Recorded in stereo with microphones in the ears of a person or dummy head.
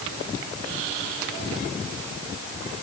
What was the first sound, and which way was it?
Only background noise.